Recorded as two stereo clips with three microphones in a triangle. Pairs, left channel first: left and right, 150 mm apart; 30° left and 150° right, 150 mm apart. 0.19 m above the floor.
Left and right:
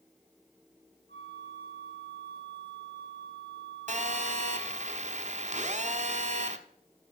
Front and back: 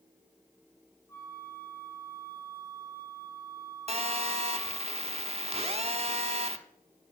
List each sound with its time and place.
1.1 s a flute: 95° left, 2.5 m
3.9 s a phone buzzing: 115° right, 0.6 m